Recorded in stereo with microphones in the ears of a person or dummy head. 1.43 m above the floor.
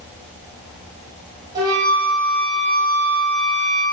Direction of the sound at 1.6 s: 20° right (ahead or behind).